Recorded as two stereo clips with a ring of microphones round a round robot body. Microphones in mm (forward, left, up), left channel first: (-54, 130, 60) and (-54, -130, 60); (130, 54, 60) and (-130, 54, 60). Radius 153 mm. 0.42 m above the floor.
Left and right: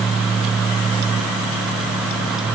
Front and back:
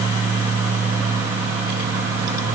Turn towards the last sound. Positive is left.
No sound to turn to.